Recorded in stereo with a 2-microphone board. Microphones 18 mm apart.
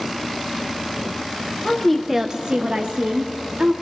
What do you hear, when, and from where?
1.6 s a woman speaking: 25° left (ahead or behind), 0.9 m; by 3.7 s 75° right (ahead or behind), 2.5 m